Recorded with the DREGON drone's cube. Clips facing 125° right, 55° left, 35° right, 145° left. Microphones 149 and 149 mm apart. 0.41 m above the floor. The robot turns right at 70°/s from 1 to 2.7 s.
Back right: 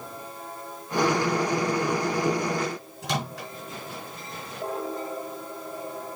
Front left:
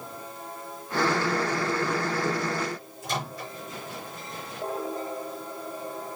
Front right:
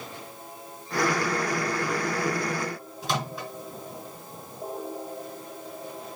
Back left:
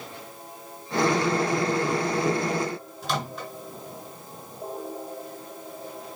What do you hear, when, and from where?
3.0 s a microwave: 110° right, 4 m